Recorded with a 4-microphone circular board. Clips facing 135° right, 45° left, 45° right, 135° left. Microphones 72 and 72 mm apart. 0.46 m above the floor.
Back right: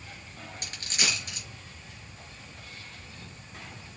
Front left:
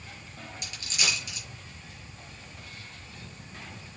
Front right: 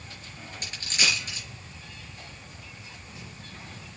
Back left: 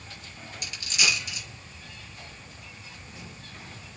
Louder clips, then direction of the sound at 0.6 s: Even, even; 95° right.